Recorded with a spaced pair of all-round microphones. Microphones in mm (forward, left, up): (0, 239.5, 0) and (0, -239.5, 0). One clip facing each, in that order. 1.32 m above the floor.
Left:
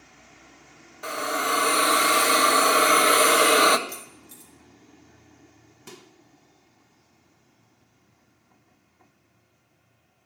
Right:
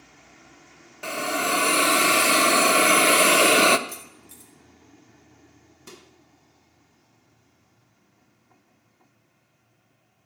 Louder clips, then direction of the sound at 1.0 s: Right 2 dB; 50° right (ahead or behind).